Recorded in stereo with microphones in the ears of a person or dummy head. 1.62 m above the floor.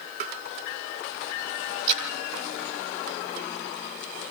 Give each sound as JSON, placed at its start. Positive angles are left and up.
{"t": 0.2, "sound": "tapping", "side_deg": -50, "distance_m": 1.6}
{"t": 1.9, "sound": "a splash", "side_deg": -40, "distance_m": 2.5}